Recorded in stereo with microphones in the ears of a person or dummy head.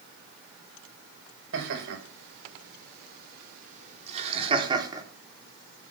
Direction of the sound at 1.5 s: 80° right.